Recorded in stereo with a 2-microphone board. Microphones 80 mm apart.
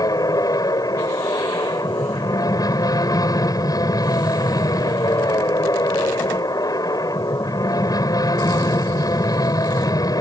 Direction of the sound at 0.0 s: 50° left (ahead or behind).